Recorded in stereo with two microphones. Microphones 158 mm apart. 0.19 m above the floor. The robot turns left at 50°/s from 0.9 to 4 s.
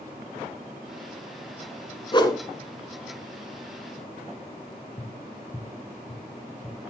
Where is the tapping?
45° left (ahead or behind), 2.0 m.